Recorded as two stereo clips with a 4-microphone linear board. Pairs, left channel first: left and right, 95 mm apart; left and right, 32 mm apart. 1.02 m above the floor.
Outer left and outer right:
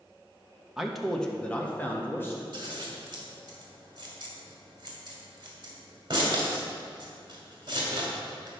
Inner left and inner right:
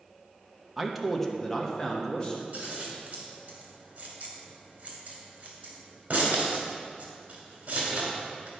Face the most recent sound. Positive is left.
turn(degrees=-50)  # may be behind; listen again after turning